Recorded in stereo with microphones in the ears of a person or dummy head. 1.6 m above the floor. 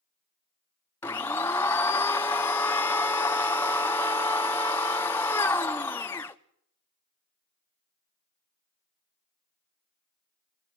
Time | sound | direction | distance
1.0 | a blender | 10° left (ahead or behind) | 0.6 m